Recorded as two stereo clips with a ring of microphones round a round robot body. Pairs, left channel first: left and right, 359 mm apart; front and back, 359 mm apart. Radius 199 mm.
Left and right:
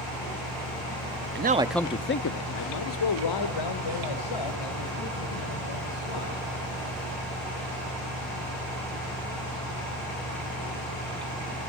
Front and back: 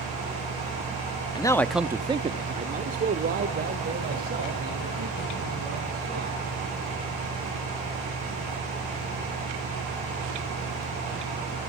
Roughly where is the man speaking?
Right.